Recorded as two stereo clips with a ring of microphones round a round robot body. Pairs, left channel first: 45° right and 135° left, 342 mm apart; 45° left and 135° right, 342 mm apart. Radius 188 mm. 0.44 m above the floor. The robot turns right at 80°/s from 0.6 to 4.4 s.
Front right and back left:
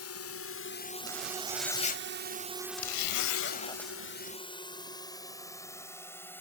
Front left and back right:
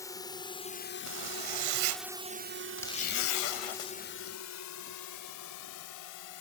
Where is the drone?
35° right; by 6.4 s 40° left.